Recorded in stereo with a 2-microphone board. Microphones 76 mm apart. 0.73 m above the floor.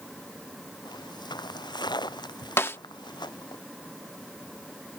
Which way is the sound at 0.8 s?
75° left (ahead or behind).